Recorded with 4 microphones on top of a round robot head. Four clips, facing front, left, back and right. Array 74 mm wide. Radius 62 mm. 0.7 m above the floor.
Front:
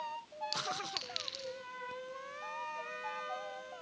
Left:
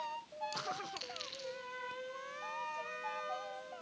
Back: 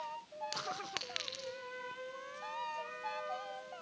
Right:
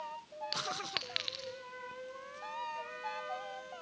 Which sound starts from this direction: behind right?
A clink, at 0.5 s.